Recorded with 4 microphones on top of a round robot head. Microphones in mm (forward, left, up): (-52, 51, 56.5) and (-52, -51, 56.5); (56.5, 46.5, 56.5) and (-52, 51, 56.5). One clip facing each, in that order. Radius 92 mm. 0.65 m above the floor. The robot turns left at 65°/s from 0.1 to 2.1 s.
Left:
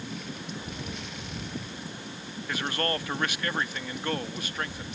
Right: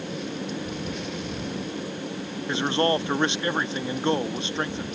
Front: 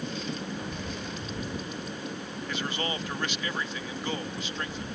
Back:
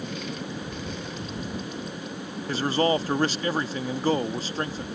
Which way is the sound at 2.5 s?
145° right.